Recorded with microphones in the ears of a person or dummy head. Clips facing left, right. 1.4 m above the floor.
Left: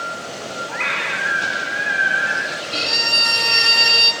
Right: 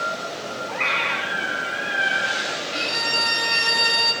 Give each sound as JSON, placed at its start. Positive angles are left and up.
{"t": 0.7, "sound": "a scream", "side_deg": 20, "distance_m": 5.0}
{"t": 2.7, "sound": "a violin", "side_deg": 60, "distance_m": 7.5}